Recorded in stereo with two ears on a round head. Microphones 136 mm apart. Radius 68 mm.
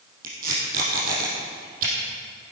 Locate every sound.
0.2 s tape being pulled: 60° right (ahead or behind), 4 m